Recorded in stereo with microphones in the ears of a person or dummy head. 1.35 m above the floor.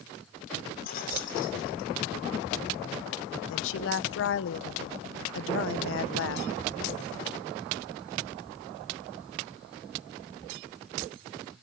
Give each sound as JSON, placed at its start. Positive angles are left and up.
{"t": 0.8, "sound": "keys jangling", "side_deg": 45, "distance_m": 2.5}
{"t": 3.5, "sound": "a woman speaking", "side_deg": 70, "distance_m": 0.6}